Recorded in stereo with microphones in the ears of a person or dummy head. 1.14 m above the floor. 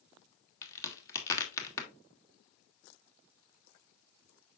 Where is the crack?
15° left (ahead or behind), 2 m.